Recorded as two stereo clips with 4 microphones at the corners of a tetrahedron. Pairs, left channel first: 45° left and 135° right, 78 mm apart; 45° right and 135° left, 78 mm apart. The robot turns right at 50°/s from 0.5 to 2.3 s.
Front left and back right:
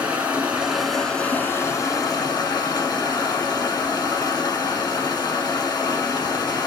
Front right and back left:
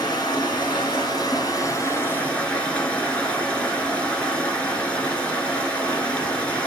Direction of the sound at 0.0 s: 65° right.